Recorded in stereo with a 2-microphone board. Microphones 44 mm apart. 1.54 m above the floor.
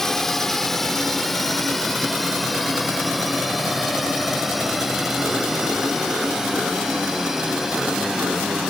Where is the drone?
10° left (ahead or behind); by 8.7 s 10° right (ahead or behind).